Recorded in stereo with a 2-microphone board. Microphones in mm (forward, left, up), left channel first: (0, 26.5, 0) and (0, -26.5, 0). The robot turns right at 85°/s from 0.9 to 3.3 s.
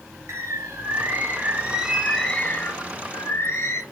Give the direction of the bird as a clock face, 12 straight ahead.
3 o'clock.